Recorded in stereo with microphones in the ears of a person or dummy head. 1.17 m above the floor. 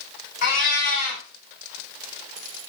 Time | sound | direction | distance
0.4 | a cat meowing | 50° left (ahead or behind) | 1.4 m